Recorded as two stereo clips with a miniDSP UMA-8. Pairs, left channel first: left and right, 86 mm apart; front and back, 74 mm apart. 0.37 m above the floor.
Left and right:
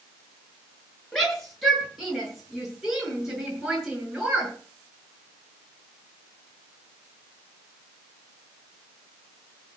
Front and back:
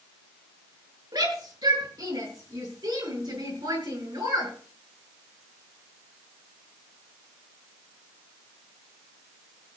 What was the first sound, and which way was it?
A shout, 175° left.